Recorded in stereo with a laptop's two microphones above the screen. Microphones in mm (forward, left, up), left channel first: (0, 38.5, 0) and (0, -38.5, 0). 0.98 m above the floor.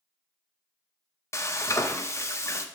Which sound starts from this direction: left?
Frying, at 1.3 s.